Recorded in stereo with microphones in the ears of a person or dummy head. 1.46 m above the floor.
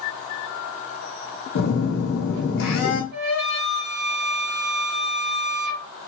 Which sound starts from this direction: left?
A phone buzzing, at 1.6 s.